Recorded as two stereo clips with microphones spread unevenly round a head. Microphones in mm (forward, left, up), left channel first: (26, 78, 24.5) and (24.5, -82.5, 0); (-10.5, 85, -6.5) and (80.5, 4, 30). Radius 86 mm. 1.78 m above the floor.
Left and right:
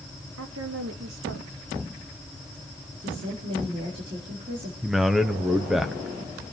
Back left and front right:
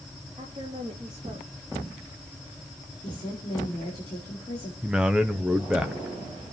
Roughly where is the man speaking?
Ahead.